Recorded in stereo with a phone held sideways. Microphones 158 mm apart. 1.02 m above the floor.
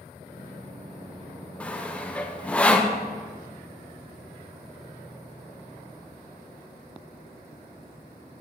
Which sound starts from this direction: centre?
Sawing, at 1.6 s.